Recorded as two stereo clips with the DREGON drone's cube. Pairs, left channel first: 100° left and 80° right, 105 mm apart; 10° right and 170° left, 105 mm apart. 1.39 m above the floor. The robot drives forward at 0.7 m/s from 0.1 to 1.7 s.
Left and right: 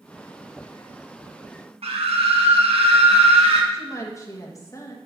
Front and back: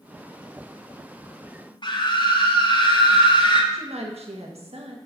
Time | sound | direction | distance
1.8 | a scream | 55° right | 1.3 m
3.7 | a woman speaking | 160° left | 1.7 m